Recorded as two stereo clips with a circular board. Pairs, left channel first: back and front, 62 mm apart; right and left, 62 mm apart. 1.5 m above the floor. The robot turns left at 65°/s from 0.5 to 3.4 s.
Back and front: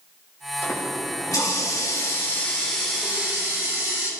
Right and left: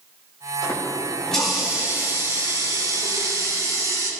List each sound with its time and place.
0.6 s a running tap: 120° right, 4 m; by 4.1 s 55° left, 4 m